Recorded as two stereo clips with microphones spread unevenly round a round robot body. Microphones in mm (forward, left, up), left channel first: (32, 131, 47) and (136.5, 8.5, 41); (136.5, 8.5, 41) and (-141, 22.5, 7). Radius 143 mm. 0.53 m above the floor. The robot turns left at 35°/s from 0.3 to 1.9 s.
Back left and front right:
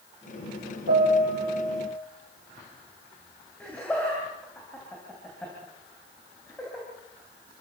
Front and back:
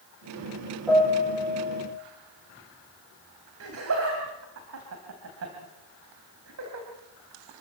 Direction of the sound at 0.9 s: 95° right.